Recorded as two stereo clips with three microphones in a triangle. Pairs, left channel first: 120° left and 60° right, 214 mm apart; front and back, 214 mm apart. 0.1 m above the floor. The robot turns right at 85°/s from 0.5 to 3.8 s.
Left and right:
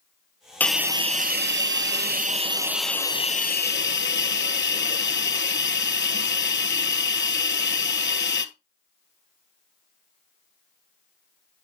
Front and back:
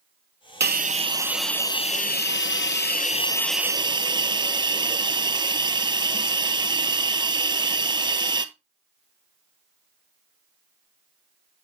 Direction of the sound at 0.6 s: 160° right.